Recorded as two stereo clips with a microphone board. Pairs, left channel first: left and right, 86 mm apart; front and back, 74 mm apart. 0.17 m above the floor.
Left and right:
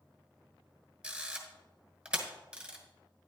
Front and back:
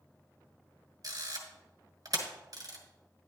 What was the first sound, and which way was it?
A camera shutter, 170° right.